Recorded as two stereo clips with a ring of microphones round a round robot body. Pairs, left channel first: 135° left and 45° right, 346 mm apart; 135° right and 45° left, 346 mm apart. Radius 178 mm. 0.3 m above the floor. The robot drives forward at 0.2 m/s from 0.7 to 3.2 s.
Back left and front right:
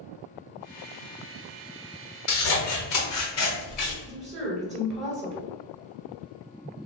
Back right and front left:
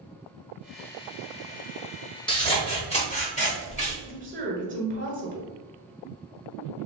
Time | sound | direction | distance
2.3 | scissors | 150° left | 1.0 m
4.0 | a woman speaking | 45° left | 1.2 m